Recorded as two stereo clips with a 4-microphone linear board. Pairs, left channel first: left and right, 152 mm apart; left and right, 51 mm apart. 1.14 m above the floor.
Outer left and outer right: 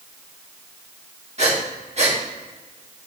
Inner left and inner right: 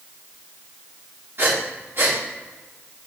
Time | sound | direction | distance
1.4 | breathing | 45° right (ahead or behind) | 1.3 m